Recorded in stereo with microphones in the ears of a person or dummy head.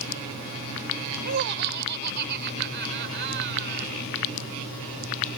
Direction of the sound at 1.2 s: 55° right (ahead or behind).